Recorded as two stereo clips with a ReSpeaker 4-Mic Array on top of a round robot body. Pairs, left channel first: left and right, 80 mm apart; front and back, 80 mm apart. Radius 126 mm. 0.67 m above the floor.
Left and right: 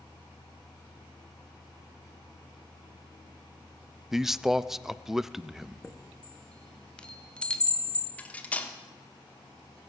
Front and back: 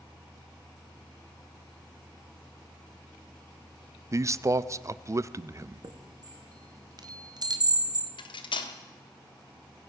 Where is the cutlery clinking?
15° left, 1.1 m.